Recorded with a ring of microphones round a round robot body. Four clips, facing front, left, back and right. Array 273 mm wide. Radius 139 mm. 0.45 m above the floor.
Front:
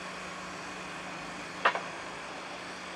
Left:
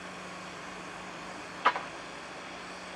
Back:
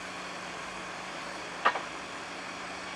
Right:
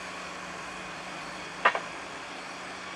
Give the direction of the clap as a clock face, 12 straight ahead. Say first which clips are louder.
Right 2 dB, even; 2 o'clock.